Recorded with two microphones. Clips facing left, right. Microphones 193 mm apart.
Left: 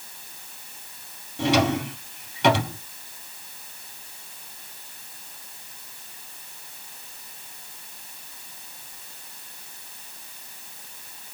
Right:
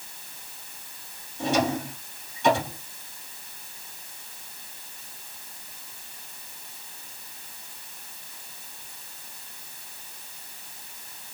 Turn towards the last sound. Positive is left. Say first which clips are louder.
# left 3 dB
turn(degrees=80)